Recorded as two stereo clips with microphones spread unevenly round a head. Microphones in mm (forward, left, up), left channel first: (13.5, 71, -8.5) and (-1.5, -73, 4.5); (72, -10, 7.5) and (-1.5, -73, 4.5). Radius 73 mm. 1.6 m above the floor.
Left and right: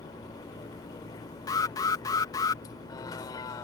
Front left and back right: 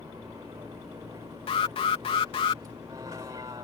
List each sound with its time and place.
0.0 s a vehicle: 150° left
1.5 s an alarm: 20° left